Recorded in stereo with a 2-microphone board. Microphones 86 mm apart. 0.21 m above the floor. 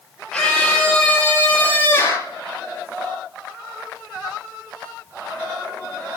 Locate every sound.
0.3 s a scream: 5° left (ahead or behind), 6.5 m; by 2.3 s 30° left (ahead or behind), 5.5 m